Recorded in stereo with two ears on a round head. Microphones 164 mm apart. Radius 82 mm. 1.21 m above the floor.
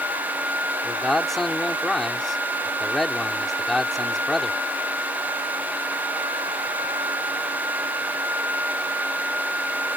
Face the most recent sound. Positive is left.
turn(degrees=0)  # may be behind; listen again after turning